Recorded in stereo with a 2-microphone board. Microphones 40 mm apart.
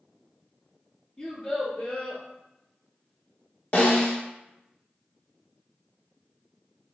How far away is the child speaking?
About 1.4 m.